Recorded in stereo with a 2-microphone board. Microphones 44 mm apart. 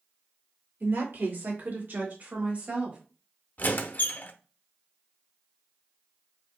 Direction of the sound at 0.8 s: 60° right (ahead or behind).